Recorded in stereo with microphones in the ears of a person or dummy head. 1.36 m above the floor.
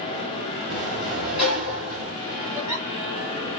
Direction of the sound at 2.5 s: 5° right (ahead or behind).